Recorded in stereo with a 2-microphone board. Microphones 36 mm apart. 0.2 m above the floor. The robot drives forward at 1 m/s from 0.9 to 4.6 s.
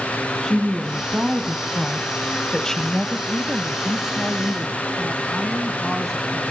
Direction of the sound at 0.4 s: 10° left (ahead or behind).